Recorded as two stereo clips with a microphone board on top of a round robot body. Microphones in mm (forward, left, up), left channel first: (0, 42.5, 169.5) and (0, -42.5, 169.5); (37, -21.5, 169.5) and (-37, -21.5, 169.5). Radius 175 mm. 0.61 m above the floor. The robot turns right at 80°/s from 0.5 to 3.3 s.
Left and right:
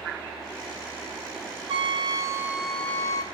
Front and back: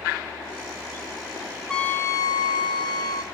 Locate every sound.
1.7 s a trumpet: 80° right, 1.1 m; by 3.2 s 40° left, 1.1 m